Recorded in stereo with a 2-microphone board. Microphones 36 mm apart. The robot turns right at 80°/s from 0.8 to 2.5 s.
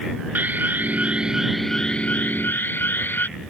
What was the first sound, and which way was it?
An alarm, 60° right.